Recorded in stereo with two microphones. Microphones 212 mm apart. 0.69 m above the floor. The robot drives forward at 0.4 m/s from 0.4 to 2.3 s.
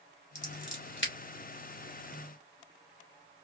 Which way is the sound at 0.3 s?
60° left (ahead or behind).